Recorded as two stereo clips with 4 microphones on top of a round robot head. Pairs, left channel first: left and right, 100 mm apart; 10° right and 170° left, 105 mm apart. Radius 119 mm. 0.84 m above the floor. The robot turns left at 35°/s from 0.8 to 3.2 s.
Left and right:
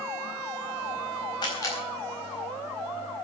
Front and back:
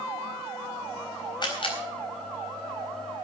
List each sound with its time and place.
1.4 s a camera shutter: 40° left, 4 m; by 1.8 s 25° left, 4 m